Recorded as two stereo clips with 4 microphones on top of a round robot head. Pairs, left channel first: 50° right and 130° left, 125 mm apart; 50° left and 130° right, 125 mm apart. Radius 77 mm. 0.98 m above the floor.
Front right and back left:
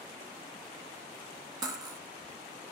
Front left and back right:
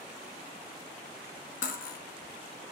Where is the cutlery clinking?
65° left, 0.8 m.